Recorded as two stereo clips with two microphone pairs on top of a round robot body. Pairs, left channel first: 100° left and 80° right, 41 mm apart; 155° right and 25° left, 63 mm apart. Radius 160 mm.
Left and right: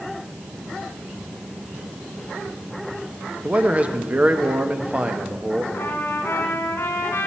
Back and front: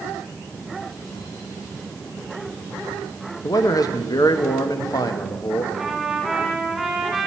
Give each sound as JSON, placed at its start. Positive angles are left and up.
{"t": 3.4, "sound": "a man speaking", "azimuth_deg": -135, "distance_m": 1.1}
{"t": 5.7, "sound": "a trumpet", "azimuth_deg": 120, "distance_m": 1.9}